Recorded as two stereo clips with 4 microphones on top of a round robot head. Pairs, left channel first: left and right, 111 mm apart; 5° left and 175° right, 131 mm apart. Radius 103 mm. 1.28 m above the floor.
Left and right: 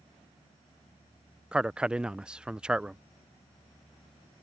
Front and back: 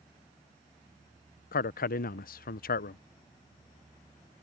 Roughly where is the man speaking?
Ahead.